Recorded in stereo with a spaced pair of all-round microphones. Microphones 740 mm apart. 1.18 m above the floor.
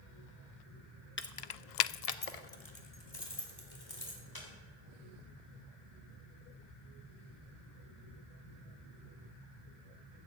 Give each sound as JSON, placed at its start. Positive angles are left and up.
{"t": 1.2, "sound": "keys jangling", "side_deg": 15, "distance_m": 0.7}